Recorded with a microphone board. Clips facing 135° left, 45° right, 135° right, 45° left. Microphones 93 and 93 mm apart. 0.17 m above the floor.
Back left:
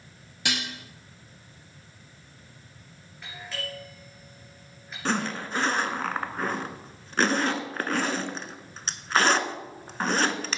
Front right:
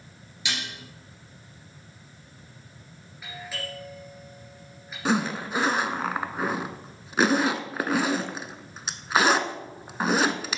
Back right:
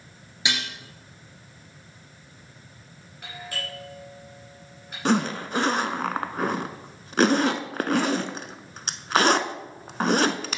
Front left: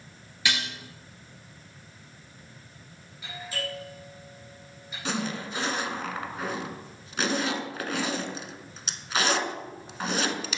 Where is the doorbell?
130° right, 3 m.